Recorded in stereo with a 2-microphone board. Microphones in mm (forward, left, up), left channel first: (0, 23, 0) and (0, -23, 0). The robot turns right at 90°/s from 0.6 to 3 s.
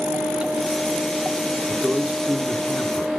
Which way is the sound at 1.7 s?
50° right (ahead or behind).